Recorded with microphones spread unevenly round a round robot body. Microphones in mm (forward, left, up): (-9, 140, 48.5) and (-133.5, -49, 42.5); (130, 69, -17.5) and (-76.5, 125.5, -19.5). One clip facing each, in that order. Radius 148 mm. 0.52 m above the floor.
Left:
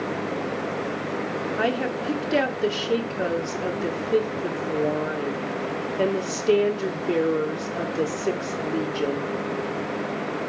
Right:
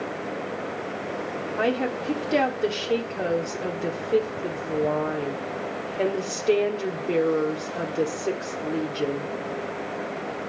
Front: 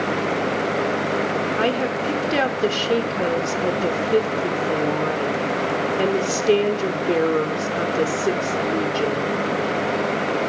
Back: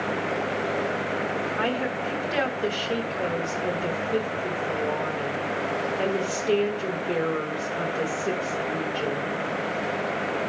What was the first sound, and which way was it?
A woman speaking, 25° right.